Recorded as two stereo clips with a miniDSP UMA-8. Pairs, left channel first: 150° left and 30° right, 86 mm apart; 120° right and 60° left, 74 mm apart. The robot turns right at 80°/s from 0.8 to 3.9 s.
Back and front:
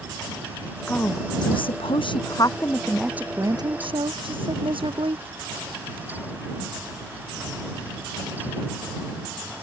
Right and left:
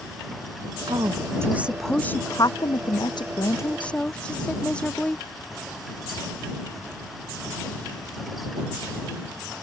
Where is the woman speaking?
75° left; by 5.2 s 45° right.